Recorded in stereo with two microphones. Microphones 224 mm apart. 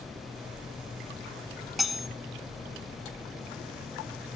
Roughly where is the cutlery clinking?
Centre.